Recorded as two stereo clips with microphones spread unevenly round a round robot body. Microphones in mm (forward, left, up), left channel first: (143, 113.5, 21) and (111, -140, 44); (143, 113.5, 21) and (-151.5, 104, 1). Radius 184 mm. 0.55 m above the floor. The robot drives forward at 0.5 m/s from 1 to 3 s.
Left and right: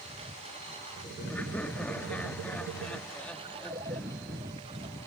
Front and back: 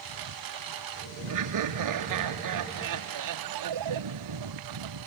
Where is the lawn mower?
170° right; by 5.1 s 175° right.